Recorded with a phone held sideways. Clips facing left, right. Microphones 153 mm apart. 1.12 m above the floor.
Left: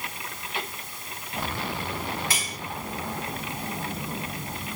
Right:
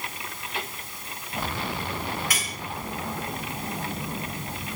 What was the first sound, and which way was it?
Cutlery clinking, 30° left (ahead or behind).